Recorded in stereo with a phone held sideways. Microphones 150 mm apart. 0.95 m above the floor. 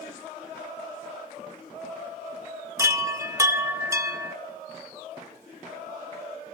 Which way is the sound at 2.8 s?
20° right (ahead or behind).